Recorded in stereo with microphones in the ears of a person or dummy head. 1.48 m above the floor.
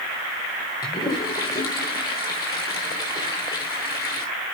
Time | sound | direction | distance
0.8 | a toilet flushing | 25° left (ahead or behind) | 1.6 m